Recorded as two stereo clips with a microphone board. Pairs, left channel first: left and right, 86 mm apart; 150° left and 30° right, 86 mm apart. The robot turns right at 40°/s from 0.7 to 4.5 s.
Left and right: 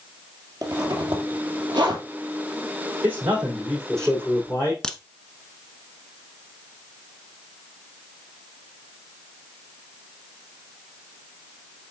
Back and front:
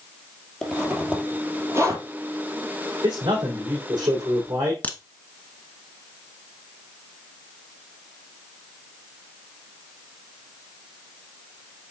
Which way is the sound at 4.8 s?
150° left.